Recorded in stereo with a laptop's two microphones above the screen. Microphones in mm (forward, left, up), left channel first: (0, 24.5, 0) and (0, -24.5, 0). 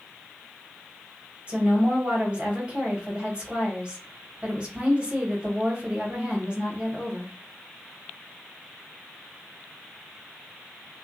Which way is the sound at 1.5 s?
25° right (ahead or behind).